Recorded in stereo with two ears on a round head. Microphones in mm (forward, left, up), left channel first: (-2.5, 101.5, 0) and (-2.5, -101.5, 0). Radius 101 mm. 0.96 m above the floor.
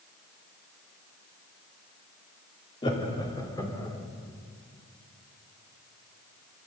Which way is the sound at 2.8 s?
25° left (ahead or behind).